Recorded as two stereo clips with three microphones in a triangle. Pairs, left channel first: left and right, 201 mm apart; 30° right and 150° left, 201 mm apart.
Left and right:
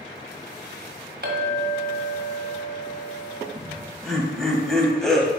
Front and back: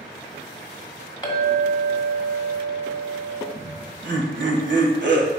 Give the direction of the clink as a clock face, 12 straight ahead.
3 o'clock.